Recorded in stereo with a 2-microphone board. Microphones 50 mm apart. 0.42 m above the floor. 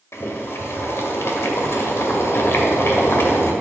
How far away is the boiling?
About 1.6 m.